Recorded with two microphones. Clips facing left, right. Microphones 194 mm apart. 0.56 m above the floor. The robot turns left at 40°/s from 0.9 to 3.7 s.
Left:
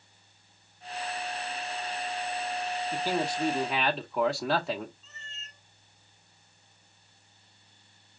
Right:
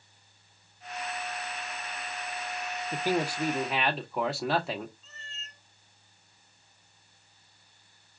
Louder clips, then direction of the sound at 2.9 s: Right 2 dB; 145° right.